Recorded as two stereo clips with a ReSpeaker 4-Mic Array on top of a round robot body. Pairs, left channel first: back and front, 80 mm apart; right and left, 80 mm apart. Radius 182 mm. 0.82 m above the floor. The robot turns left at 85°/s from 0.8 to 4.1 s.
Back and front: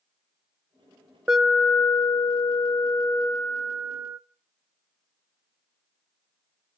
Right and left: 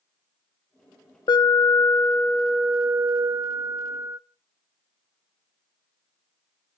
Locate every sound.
1.3 s an alarm: 80° right, 1.4 m; by 4.2 s 40° left, 1.4 m